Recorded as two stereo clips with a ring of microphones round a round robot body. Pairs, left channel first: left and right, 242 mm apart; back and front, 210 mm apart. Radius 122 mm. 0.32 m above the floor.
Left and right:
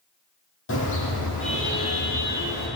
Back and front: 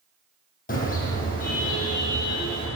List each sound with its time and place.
0.7 s a car horn: 130° left, 8.5 m